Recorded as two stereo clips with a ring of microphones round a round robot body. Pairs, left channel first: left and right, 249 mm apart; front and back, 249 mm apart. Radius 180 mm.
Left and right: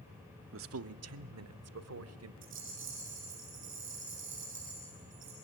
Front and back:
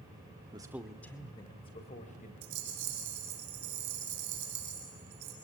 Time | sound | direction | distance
0.5 | a man speaking | 110° right | 0.8 m
2.4 | a rattle | 150° right | 3.5 m